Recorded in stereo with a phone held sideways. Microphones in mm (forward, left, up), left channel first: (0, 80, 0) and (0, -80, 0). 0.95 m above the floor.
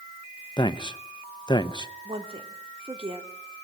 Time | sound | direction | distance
0.6 | a man speaking | 30° left (ahead or behind) | 0.9 m
2.0 | a woman speaking | 35° right (ahead or behind) | 3 m